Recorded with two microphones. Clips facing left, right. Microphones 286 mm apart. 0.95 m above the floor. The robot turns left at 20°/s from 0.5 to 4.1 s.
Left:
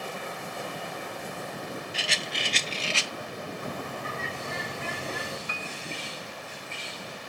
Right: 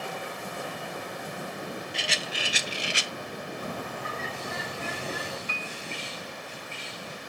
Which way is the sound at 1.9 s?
5° left (ahead or behind).